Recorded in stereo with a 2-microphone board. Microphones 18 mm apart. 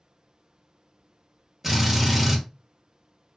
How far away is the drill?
About 1.3 m.